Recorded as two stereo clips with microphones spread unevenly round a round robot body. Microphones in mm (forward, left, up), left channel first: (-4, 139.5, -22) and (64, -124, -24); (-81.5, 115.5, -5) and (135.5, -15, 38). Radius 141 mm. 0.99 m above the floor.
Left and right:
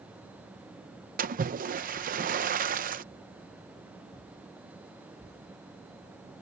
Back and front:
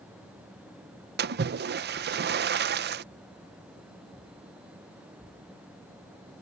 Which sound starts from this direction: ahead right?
A splash, at 1.2 s.